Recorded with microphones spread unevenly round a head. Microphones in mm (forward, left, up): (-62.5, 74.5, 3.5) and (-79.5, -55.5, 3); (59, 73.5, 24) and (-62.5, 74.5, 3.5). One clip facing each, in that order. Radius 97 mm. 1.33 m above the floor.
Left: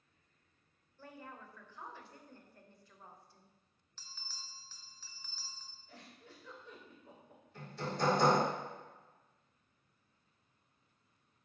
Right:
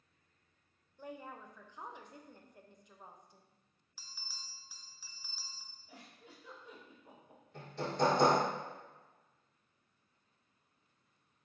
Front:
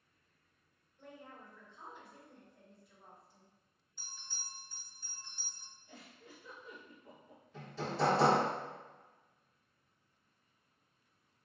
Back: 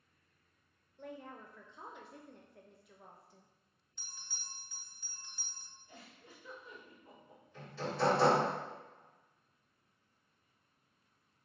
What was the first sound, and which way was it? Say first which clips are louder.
A woman speaking: right 4 dB, back 5 dB; 170° right.